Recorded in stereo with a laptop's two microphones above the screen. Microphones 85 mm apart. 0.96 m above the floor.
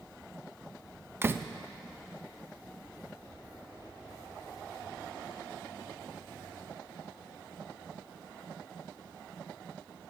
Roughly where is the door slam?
Right.